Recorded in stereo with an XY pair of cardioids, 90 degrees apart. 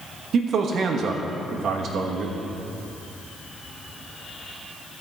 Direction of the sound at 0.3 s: 70° right.